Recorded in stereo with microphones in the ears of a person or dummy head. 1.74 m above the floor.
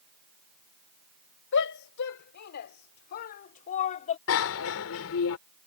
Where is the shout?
65° left (ahead or behind); by 4.2 s 35° left (ahead or behind).